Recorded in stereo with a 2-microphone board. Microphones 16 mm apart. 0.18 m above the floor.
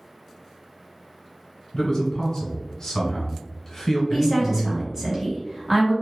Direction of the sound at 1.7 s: 30° left (ahead or behind).